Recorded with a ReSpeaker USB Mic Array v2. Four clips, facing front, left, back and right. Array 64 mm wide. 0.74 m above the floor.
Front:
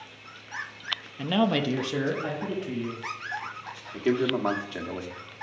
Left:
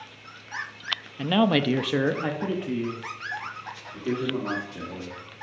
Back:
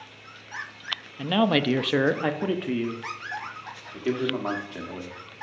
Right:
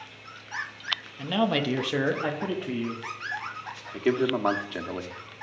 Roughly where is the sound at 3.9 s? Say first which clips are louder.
Right 4 dB, front 2 dB; right.